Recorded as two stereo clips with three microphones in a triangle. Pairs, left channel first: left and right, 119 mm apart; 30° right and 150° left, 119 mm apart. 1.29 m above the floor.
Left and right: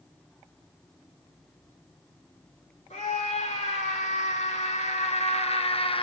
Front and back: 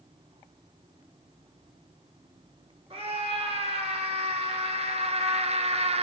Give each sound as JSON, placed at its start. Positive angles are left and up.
{"t": 2.9, "sound": "a scream", "azimuth_deg": 110, "distance_m": 3.0}